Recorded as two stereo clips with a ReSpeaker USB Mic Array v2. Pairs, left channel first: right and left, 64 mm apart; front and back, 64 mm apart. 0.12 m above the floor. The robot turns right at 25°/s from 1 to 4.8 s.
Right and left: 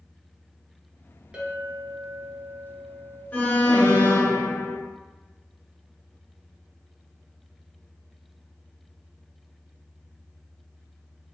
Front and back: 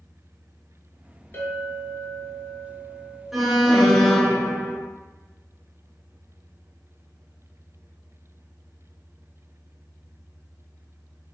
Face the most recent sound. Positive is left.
turn(degrees=-60)